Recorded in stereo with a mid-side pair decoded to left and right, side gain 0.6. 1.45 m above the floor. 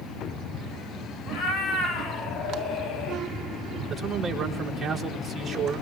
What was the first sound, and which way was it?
A cat meowing, 55° left.